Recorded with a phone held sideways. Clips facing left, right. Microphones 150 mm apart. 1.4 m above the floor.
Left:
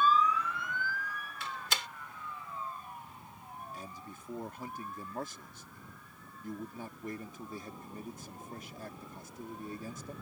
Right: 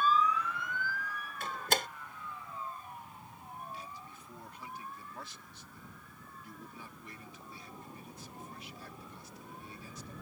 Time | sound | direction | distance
1.4 | a door slam | 50° right (ahead or behind) | ?
3.7 | a man speaking | 45° left (ahead or behind) | ?